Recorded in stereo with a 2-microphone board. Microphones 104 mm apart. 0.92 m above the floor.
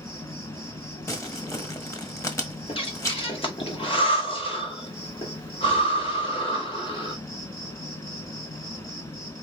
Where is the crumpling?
30° left (ahead or behind), 1.2 m.